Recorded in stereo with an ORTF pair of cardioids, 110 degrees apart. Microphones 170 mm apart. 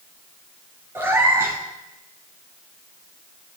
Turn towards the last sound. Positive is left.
turn(degrees=-15)